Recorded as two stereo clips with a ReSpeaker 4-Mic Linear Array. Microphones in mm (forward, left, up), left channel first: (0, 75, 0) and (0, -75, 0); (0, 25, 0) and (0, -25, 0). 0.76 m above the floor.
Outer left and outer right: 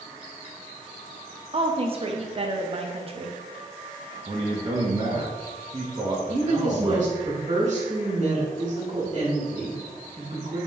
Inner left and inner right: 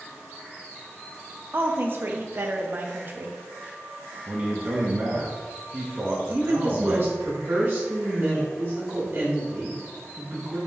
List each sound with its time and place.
1.5 s a woman speaking: 40° right (ahead or behind), 0.5 m
4.3 s a man speaking: 35° right (ahead or behind), 0.7 m
6.3 s a woman speaking: 55° right (ahead or behind), 1.6 m